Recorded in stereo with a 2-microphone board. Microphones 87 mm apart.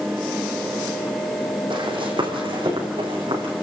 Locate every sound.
1.7 s running footsteps: 65° right (ahead or behind), 4.5 m; by 3.5 s 75° right (ahead or behind), 6.5 m